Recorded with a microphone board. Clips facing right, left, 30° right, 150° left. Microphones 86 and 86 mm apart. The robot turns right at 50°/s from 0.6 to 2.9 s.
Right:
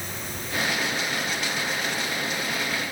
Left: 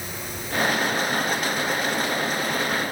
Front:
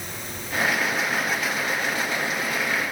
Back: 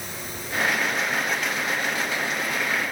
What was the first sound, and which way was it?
Only background noise.